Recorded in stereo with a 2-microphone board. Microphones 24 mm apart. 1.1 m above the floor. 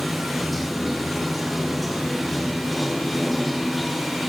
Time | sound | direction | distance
0.0 | running water | centre (ahead or behind) | 1.2 m